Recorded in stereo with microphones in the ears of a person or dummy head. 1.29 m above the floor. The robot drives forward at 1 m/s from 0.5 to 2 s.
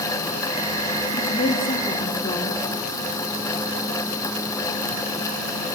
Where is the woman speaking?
25° left (ahead or behind), 2.5 m; by 2.6 s 20° left (ahead or behind), 3.5 m.